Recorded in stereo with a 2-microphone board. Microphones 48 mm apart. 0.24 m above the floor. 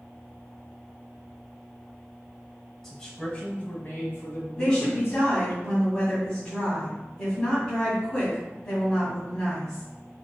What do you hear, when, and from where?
2.8 s a man speaking: 10° left (ahead or behind), 1.2 m; by 5.2 s 50° left (ahead or behind), 2.5 m
4.6 s a woman speaking: 15° left (ahead or behind), 2 m